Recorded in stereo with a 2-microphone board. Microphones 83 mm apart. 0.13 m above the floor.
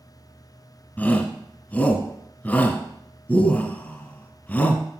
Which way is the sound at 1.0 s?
15° left (ahead or behind).